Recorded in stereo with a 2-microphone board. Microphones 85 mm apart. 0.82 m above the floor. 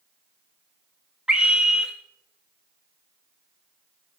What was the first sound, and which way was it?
A scream, 10° right (ahead or behind).